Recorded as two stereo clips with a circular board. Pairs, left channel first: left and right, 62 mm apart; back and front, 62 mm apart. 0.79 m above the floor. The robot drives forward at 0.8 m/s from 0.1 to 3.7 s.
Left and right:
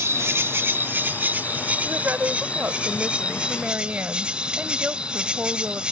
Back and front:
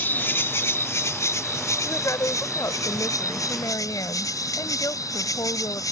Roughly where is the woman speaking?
Behind right.